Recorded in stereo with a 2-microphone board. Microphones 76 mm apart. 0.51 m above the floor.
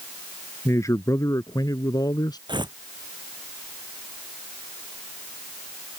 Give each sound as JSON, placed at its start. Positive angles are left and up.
{"t": 0.7, "sound": "a man speaking", "side_deg": 40}
{"t": 2.5, "sound": "tearing paper", "side_deg": -85}